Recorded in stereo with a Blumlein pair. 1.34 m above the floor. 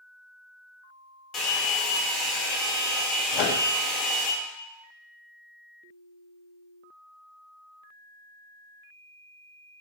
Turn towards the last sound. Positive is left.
turn(degrees=40)